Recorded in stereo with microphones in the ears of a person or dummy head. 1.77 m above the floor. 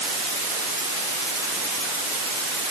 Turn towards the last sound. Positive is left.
No sound to turn to.